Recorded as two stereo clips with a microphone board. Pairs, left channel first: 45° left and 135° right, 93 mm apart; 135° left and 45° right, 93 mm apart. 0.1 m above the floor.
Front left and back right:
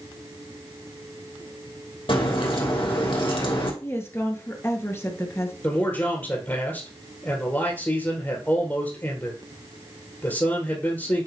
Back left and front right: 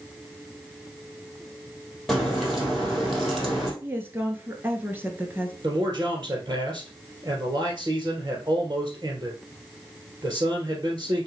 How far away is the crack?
About 3 m.